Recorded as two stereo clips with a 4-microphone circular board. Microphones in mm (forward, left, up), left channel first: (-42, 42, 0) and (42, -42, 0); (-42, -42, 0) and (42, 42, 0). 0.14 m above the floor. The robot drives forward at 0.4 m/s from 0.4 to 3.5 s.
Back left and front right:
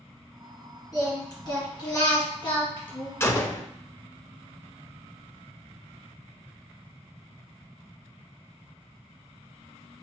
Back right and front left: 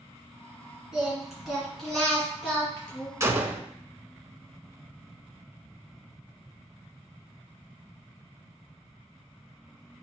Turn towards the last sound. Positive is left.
turn(degrees=110)